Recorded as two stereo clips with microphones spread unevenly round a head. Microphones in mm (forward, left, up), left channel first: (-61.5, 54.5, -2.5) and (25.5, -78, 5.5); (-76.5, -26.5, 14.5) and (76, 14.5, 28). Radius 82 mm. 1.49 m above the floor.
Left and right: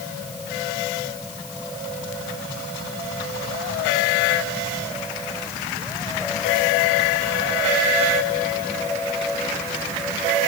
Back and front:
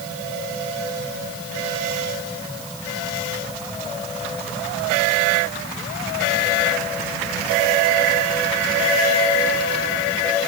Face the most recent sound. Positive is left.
No sound to turn to.